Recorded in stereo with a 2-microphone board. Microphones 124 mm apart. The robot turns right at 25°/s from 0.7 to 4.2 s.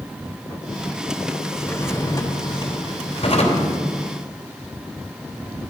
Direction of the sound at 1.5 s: 10° left.